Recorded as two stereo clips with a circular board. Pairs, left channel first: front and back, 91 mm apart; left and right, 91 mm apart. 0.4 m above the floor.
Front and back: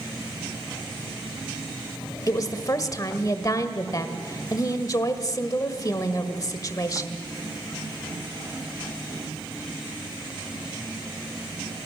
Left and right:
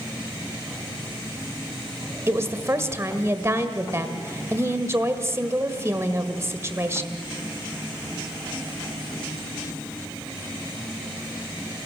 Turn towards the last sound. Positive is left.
turn(degrees=-35)